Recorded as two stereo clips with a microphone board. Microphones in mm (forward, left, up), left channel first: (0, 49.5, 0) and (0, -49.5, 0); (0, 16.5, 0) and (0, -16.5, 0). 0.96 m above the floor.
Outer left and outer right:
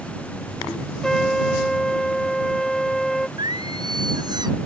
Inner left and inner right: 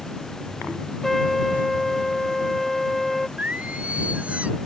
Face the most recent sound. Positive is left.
turn(degrees=-50)  # may be behind; listen again after turning